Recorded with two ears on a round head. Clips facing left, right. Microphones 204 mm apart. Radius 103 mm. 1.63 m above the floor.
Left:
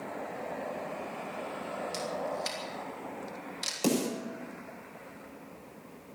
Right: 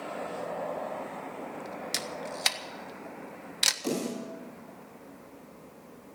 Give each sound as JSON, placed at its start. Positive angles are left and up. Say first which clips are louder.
{"t": 1.9, "sound": "a camera shutter", "louder": "left 3 dB", "side_deg": -75, "distance_m": 1.5}
{"t": 3.8, "sound": "a snare drum", "louder": "left 3 dB", "side_deg": 75, "distance_m": 7.0}